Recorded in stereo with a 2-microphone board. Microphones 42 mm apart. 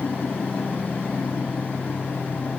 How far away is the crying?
No crying in this recording.